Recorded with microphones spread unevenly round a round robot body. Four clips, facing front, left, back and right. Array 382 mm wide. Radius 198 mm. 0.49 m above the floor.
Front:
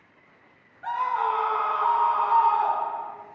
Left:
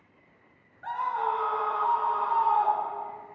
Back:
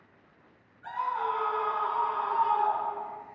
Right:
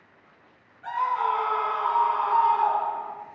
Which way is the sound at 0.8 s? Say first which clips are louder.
Right 3 dB, front 5 dB; 25° left.